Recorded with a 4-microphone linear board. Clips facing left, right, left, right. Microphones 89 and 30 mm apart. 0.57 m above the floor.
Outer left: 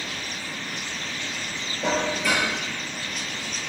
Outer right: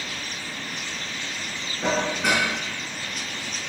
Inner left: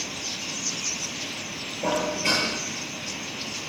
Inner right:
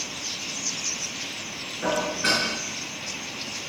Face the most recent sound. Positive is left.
turn(degrees=-65)  # may be behind; listen again after turning